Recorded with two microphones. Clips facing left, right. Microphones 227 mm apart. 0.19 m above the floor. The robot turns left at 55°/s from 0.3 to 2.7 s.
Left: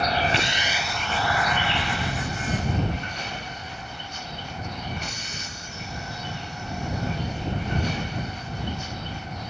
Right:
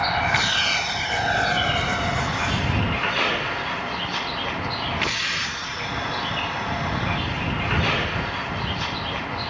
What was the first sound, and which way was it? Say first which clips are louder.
A vehicle: left 2 dB; 30° left (ahead or behind).